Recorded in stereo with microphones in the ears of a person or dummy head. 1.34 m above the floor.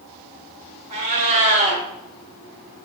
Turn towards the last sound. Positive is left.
turn(degrees=-40)  # may be behind; listen again after turning